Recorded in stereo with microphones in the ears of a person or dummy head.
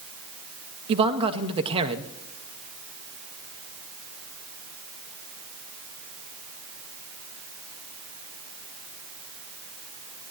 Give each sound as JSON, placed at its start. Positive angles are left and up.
{"t": 0.9, "sound": "a man speaking", "side_deg": -30, "distance_m": 0.8}